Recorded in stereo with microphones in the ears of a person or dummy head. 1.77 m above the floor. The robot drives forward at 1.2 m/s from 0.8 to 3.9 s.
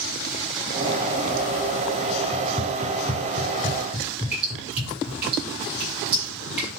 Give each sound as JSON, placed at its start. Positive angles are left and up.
{"t": 2.3, "sound": "running footsteps", "side_deg": 5, "distance_m": 2.0}
{"t": 4.3, "sound": "dripping", "side_deg": -5, "distance_m": 7.5}